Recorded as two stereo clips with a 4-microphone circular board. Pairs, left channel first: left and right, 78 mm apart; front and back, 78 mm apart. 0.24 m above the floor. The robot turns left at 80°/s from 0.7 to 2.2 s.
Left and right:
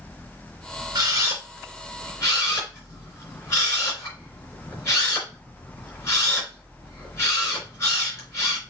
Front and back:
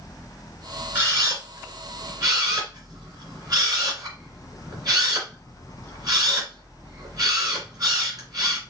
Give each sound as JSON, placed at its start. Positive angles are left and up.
{"t": 0.9, "sound": "a camera shutter", "azimuth_deg": -120, "distance_m": 3.0}